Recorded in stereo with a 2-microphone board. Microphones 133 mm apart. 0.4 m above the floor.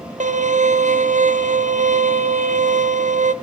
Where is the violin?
65° right (ahead or behind), 1.0 m.